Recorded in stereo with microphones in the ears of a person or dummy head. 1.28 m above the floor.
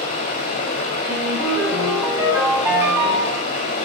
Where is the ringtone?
15° right (ahead or behind), 6 m.